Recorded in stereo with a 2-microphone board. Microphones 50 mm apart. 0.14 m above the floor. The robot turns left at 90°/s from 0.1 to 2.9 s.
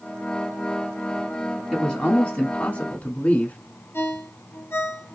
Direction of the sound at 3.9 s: 55° left (ahead or behind).